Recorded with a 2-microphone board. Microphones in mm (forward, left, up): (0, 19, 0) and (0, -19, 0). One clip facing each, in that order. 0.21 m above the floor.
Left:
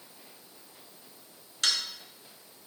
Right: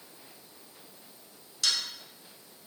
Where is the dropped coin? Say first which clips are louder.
Left 1 dB; 50° left (ahead or behind), 0.6 m.